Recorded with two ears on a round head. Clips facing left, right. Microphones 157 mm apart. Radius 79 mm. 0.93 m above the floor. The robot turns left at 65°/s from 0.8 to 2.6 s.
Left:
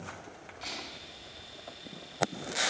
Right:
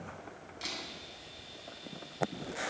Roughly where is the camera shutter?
Right.